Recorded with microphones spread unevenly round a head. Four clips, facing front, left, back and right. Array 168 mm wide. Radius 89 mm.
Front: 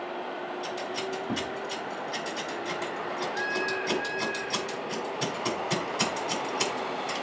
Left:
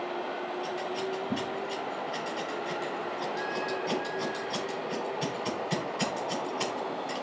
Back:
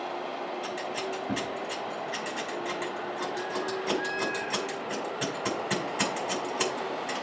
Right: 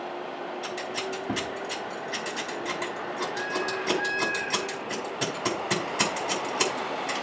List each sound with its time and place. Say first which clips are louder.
0.6 s scissors: even, even; 110° right, 5.5 m